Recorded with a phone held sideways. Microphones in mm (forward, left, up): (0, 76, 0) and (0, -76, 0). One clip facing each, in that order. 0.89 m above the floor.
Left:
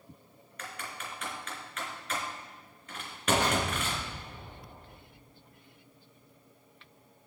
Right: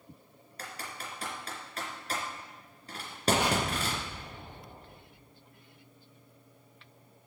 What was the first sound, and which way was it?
Typing on a keyboard, 35° right (ahead or behind).